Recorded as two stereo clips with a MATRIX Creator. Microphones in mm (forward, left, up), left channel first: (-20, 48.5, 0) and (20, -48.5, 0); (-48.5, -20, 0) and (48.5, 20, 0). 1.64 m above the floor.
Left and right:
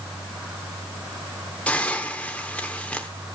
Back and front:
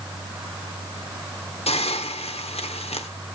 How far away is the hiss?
About 1.1 m.